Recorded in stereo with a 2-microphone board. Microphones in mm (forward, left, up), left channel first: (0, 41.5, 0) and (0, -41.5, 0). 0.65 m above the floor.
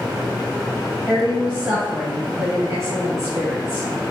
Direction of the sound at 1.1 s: 15° right (ahead or behind).